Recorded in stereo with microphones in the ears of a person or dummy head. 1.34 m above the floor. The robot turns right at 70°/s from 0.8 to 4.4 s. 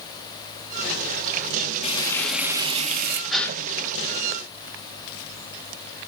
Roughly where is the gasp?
Centre.